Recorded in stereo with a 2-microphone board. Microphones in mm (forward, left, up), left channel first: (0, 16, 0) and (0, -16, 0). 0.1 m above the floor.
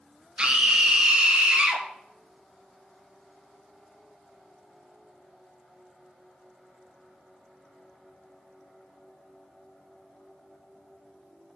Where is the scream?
25° right (ahead or behind), 1.5 m.